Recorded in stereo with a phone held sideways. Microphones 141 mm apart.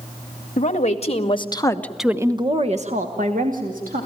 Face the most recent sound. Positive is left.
turn(degrees=-80)